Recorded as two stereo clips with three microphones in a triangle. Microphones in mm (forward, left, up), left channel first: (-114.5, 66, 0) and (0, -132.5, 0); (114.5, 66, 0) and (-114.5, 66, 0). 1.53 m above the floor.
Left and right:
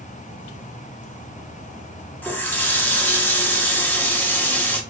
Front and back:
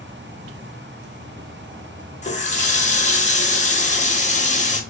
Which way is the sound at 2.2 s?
40° left.